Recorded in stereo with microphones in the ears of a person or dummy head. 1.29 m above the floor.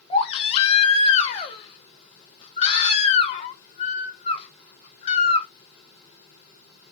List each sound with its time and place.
0.1 s a baby crying: 30° left (ahead or behind), 1.1 m